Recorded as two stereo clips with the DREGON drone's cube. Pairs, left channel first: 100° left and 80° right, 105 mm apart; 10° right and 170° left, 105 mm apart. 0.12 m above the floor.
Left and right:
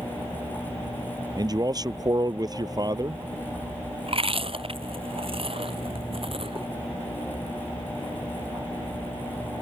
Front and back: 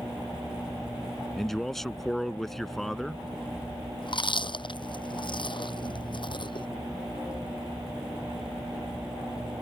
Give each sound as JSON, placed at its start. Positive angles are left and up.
{"t": 1.4, "sound": "a man speaking", "azimuth_deg": -95}
{"t": 4.0, "sound": "chewing", "azimuth_deg": -50}